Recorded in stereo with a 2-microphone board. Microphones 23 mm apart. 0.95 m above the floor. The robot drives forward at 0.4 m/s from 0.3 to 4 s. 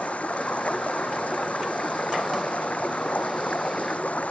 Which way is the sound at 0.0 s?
75° left (ahead or behind).